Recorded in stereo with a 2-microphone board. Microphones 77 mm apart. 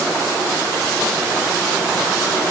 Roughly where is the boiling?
No boiling in this recording.